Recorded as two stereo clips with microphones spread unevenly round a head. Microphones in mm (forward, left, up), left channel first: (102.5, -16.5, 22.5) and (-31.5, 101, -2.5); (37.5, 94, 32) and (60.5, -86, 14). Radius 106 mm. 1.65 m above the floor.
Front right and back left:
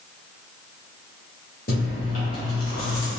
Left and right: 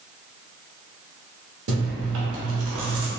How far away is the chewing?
About 0.8 m.